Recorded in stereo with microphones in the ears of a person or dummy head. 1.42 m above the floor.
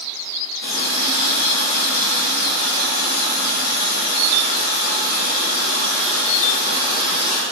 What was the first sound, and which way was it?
A running tap, 60° left (ahead or behind).